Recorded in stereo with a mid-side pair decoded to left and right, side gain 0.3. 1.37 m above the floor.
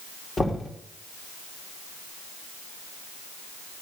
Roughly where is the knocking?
Ahead left.